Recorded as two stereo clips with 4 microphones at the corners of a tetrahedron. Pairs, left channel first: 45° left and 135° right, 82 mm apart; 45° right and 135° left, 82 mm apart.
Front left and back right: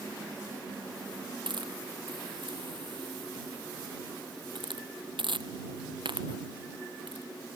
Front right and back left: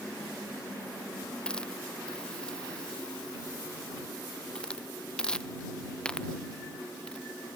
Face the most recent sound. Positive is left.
turn(degrees=-125)